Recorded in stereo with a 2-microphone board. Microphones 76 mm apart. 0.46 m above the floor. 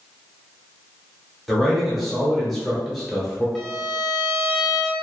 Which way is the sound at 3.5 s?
5° left (ahead or behind).